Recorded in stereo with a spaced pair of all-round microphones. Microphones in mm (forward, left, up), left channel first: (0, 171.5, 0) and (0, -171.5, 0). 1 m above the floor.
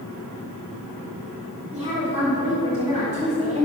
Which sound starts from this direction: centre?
A woman speaking, at 1.7 s.